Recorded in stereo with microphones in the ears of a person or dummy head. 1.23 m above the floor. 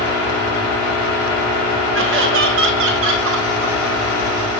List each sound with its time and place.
1.9 s laughter: 60° right (ahead or behind), 1.1 m